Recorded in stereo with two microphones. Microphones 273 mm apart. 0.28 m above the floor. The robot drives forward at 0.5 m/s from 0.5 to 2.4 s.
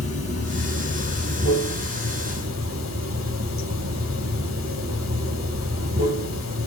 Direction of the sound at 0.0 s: 65° right (ahead or behind).